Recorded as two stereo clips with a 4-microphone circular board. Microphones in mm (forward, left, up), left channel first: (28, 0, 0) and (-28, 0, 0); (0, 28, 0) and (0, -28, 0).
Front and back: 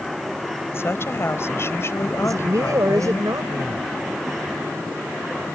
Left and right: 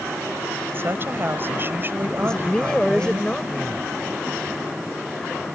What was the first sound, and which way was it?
A woman speaking, 40° right.